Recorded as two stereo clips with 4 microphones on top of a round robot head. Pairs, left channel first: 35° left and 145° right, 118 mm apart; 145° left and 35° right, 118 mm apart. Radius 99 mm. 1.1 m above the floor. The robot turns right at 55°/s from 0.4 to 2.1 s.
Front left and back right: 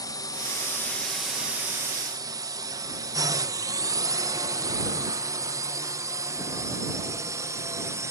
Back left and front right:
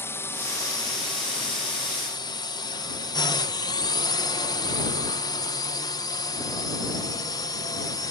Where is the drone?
80° left; by 8.1 s 170° left.